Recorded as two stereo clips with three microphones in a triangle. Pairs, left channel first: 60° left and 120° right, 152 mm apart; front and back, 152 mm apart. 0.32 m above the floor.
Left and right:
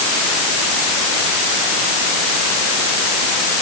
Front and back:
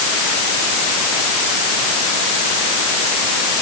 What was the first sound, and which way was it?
Only background noise.